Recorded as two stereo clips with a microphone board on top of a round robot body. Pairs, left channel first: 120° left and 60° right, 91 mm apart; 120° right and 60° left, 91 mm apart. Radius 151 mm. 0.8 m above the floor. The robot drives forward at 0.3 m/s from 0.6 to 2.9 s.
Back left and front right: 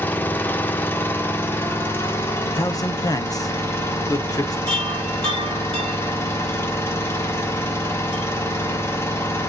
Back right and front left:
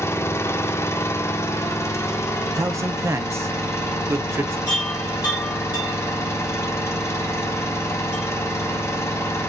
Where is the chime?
155° right, 1.9 m.